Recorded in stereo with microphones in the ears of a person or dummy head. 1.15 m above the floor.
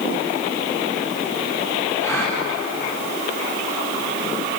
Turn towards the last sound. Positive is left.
turn(degrees=20)  # may be behind; listen again after turning